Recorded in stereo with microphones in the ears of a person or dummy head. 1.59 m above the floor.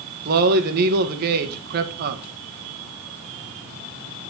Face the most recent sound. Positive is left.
turn(degrees=-55)  # may be behind; listen again after turning